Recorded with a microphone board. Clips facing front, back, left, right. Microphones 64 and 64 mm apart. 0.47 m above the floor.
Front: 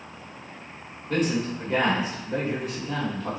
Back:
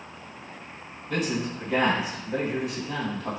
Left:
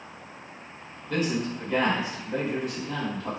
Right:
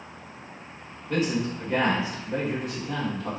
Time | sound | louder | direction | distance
1.1 | a man speaking | front 3 dB, right 1 dB | 30° right | 1.7 m